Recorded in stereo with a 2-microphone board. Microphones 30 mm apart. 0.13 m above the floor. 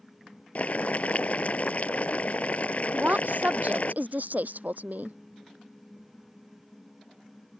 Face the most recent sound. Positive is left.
turn(degrees=-60)  # may be behind; listen again after turning